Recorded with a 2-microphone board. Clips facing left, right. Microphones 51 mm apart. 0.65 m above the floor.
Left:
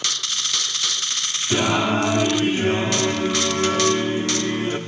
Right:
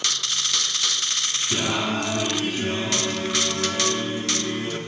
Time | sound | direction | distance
1.5 | singing | 35° left (ahead or behind) | 1.4 m